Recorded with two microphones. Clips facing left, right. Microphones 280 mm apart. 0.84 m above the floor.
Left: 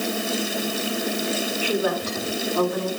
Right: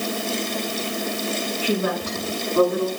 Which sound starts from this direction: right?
A woman speaking, at 1.6 s.